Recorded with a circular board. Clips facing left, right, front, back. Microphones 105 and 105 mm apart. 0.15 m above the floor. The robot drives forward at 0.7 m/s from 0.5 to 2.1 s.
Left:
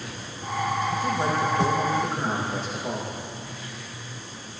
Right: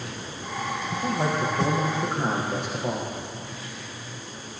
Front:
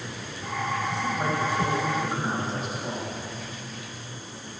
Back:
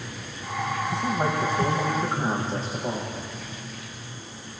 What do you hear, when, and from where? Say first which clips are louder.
0.9 s a man speaking: left 1 dB, back 2 dB; 115° right, 5.5 m; by 3.1 s 120° right, 6 m